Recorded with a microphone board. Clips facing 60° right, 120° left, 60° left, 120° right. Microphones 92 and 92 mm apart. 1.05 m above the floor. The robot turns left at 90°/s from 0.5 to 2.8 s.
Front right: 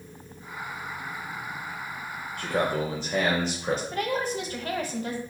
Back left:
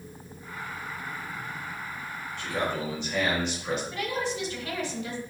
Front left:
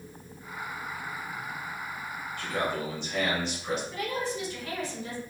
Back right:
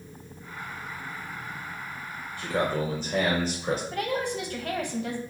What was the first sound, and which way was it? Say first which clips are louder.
A man speaking: front right 4 dB, back right 4 dB; 55° right.